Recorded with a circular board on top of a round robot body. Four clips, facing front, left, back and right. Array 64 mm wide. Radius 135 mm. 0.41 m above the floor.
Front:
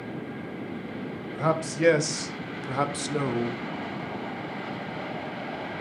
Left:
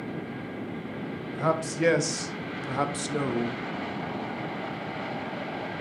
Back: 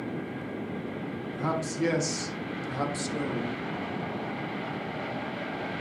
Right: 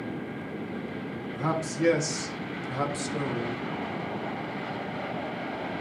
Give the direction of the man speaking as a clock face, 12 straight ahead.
11 o'clock.